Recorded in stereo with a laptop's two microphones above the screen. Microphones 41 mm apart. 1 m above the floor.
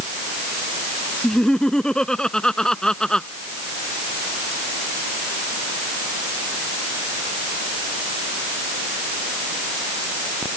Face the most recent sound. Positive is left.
turn(degrees=15)  # may be behind; listen again after turning